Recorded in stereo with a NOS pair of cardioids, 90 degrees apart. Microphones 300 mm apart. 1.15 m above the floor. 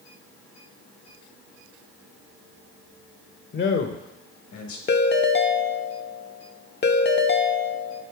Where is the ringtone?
35° left, 0.7 m.